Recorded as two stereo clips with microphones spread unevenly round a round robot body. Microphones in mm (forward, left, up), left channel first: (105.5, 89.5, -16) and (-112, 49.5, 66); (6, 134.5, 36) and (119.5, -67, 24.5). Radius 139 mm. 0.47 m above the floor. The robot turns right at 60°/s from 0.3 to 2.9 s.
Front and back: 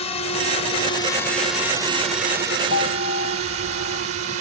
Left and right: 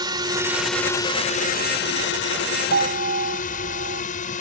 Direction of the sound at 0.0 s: 5° left.